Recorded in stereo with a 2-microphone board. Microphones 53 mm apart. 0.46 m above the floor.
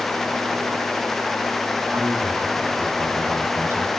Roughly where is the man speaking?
Right.